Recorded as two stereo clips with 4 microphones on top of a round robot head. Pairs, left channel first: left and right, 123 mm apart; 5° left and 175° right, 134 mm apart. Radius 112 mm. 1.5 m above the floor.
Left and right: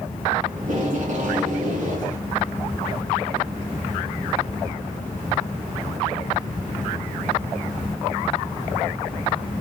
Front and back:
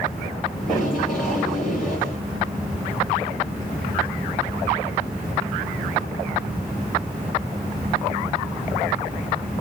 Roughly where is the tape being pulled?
Right.